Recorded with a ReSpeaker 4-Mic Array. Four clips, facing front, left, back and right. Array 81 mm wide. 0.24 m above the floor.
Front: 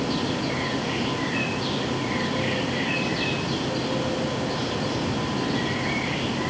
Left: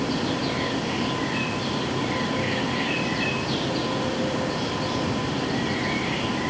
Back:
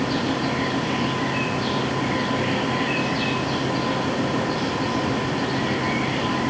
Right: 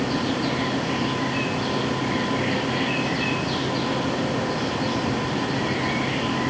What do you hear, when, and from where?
Only background noise.